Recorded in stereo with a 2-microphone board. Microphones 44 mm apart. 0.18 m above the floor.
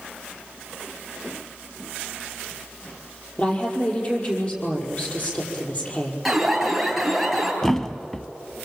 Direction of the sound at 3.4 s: 35° left (ahead or behind).